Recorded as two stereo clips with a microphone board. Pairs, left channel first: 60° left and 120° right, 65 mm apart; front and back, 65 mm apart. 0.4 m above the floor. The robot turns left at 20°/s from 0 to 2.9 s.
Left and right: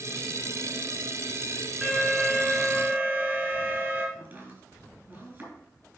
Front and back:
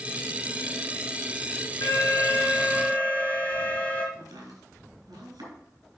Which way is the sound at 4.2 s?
Straight behind.